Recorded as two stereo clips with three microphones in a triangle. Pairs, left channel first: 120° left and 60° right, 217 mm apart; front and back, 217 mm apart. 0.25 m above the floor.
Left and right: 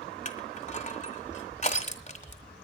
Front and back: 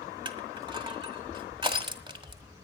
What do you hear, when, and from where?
0.2 s crushing: 130° left, 1.5 m